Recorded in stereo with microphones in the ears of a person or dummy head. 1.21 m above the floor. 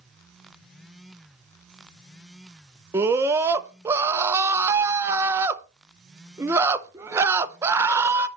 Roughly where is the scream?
Centre.